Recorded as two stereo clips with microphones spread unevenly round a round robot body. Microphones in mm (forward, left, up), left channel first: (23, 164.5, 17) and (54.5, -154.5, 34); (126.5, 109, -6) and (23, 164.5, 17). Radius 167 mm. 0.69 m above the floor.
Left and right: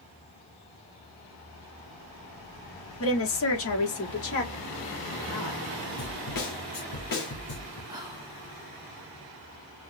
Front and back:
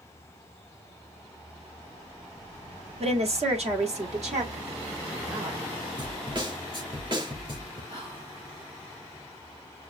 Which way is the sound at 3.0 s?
130° left.